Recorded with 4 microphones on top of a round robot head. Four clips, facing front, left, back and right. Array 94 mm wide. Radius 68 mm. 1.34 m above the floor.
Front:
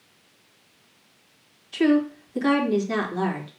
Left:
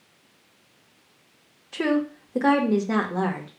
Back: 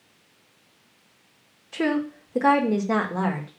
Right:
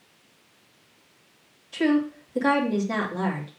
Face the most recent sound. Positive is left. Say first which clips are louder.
# right 1 dB, front 5 dB
turn(degrees=130)